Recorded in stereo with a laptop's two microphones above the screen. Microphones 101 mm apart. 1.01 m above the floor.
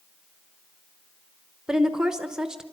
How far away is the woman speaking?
About 0.9 m.